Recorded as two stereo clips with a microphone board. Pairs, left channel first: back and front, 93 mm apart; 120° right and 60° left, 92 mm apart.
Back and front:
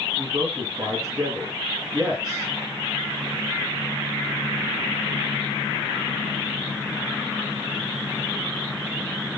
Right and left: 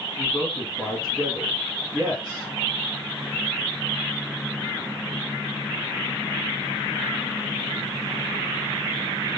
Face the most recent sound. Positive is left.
turn(degrees=-30)